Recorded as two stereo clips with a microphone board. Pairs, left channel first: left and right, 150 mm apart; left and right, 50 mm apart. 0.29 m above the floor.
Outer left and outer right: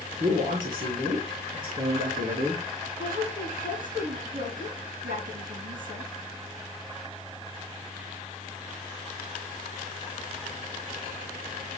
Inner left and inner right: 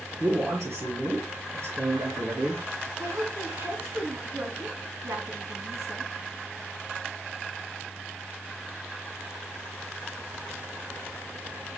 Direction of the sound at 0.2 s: 65° right (ahead or behind).